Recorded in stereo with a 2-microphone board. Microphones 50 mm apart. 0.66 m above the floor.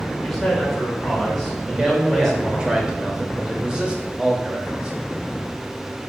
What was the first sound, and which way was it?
A man speaking, 10° left (ahead or behind).